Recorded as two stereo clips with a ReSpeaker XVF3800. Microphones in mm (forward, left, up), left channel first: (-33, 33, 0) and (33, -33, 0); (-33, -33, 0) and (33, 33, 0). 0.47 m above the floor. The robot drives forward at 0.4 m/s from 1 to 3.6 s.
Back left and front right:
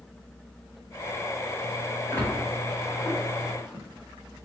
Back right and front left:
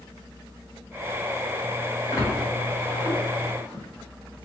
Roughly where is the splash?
Behind.